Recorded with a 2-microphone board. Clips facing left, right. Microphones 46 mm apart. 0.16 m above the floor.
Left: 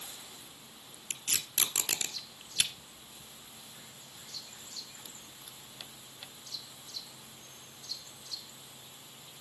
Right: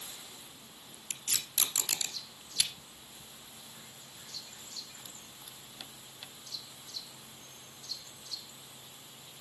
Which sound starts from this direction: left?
Tape being pulled, at 1.1 s.